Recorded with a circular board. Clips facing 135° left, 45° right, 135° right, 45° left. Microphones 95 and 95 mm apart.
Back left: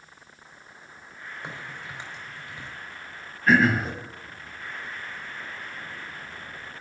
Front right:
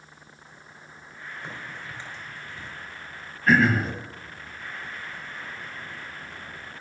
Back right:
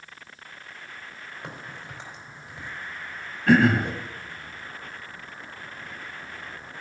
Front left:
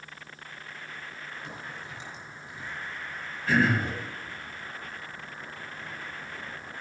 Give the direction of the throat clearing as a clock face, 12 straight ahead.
5 o'clock.